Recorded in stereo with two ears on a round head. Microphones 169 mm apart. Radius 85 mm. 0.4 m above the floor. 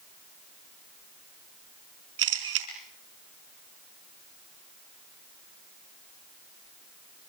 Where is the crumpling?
I don't hear crumpling.